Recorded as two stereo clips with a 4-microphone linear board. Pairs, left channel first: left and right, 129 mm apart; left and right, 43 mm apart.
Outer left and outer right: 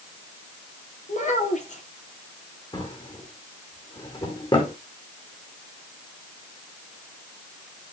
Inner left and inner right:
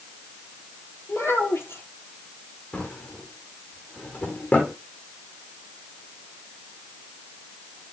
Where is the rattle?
I don't hear a rattle.